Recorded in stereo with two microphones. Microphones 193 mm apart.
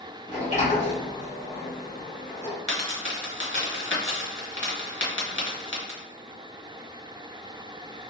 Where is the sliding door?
35° left (ahead or behind), 1.5 m.